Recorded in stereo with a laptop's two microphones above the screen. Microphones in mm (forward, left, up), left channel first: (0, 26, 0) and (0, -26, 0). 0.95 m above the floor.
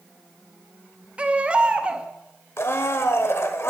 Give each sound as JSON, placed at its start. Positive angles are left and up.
{"t": 1.2, "sound": "a baby crying", "side_deg": -25, "distance_m": 0.7}
{"t": 2.6, "sound": "a blender", "side_deg": 55, "distance_m": 1.2}